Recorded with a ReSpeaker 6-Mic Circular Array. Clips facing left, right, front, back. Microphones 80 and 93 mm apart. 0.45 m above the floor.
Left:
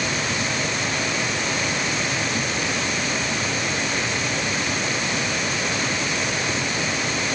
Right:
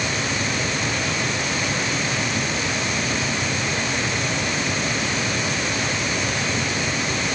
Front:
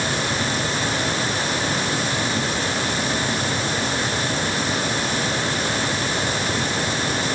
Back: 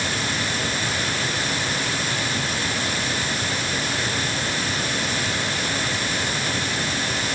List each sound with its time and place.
Only background noise.